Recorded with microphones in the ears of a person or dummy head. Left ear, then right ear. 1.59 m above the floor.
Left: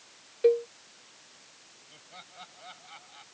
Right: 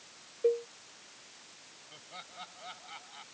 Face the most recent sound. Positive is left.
turn(degrees=-5)  # may be behind; listen again after turning